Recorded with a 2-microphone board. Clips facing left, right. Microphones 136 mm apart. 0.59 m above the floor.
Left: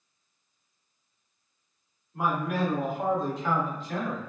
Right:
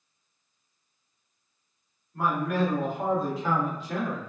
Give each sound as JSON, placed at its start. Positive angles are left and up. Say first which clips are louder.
{"t": 2.1, "sound": "a man speaking", "louder": "right 2 dB", "side_deg": 15, "distance_m": 1.8}